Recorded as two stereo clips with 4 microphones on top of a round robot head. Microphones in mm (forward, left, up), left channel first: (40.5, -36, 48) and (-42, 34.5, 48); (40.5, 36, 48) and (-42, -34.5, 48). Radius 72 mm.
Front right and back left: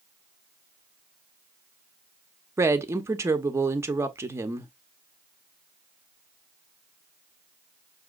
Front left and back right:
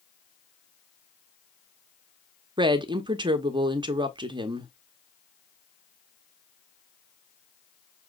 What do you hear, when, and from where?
2.6 s a woman speaking: 165° right, 0.8 m